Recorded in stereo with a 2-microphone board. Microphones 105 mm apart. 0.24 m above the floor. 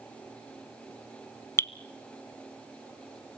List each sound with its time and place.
1.6 s dripping: 25° left (ahead or behind), 0.6 m